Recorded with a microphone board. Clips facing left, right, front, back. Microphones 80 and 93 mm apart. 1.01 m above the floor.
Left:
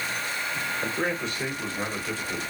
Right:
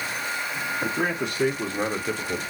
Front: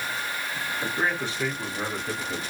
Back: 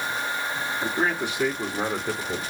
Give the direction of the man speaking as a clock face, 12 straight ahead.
3 o'clock.